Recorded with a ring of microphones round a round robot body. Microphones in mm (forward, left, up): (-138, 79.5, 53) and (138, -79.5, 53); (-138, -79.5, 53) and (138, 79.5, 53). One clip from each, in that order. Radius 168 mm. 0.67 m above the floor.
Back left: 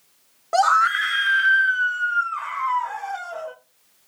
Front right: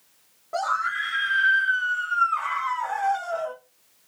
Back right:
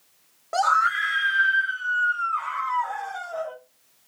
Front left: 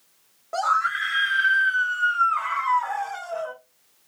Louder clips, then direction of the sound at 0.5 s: Back left 8 dB, back right 2 dB; 140° left.